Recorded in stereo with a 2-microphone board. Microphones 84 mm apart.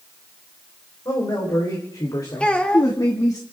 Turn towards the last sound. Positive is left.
turn(degrees=10)  # may be behind; listen again after turning